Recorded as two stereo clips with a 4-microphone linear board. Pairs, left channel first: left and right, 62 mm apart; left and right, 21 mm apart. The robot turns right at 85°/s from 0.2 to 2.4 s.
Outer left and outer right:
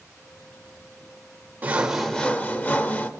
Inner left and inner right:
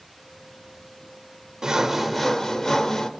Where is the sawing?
35° right, 0.6 m; by 3.1 s 35° left, 0.6 m.